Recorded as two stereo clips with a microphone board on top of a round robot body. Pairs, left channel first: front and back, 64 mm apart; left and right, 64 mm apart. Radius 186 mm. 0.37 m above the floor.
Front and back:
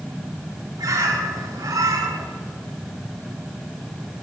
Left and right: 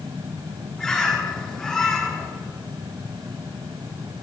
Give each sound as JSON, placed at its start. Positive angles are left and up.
{"t": 0.8, "sound": "a bird", "azimuth_deg": 175, "distance_m": 4.5}